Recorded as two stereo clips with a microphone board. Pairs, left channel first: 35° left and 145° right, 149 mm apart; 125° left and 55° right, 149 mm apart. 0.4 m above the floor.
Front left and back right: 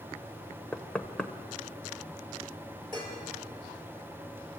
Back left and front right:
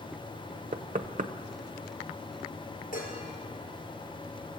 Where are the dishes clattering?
155° left, 5.5 m.